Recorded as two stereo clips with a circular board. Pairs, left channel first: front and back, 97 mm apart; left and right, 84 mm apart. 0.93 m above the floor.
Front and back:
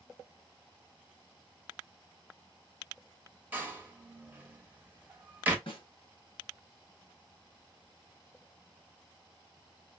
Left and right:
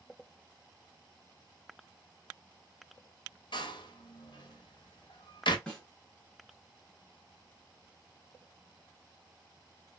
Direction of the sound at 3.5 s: 110° left.